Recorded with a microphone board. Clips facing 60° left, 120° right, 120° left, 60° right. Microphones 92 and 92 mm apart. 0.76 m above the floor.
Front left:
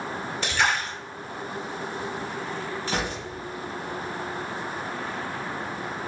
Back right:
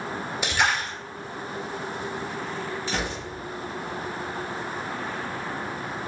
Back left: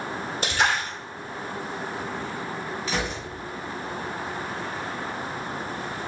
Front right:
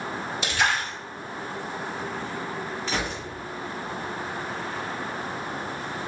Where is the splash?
160° left, 2.0 m.